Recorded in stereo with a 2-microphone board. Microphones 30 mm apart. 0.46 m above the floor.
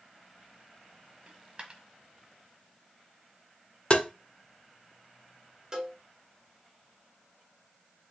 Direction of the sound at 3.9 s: 40° left (ahead or behind).